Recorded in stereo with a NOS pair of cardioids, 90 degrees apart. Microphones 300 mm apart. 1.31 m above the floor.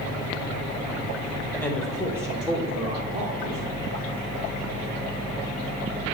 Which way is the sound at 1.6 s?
5° left.